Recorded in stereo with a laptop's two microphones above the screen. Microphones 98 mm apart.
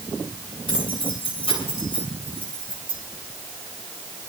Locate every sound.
0.7 s keys jangling: 80° left, 7.5 m; by 3.0 s 75° left (ahead or behind), 6.5 m